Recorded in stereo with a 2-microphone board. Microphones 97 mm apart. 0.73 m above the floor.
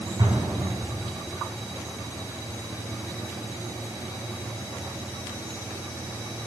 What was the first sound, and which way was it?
An explosion, 45° right (ahead or behind).